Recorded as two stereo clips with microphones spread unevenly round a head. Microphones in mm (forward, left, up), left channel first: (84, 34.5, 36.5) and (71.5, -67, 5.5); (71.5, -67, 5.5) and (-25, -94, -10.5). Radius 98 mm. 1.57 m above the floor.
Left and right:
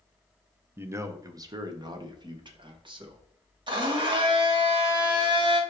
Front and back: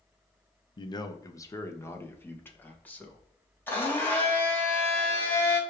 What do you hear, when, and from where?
0.8 s a man speaking: 30° right, 1.0 m; by 3.2 s 60° right, 2.5 m
3.7 s a blender: 55° right, 2.5 m